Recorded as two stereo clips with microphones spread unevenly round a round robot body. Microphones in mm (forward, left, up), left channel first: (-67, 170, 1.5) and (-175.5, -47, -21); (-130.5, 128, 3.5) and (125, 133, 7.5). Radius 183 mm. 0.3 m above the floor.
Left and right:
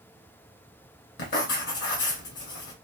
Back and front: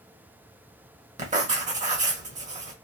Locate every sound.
1.2 s writing: 45° left, 0.9 m